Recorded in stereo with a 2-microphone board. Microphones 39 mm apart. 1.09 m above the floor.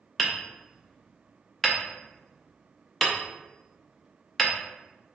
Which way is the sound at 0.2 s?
5° left (ahead or behind).